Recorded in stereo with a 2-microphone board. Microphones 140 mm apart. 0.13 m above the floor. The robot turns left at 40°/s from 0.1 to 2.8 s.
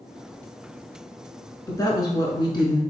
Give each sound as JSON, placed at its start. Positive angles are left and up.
{"t": 1.7, "sound": "a woman speaking", "azimuth_deg": 130, "distance_m": 1.2}